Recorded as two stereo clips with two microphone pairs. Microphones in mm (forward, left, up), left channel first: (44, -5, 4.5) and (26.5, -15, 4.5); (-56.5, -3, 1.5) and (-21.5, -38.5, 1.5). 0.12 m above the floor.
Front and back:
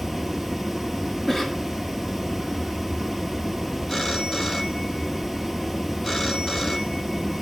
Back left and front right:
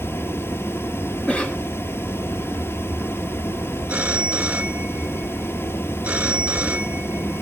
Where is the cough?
90° left, 1.8 m.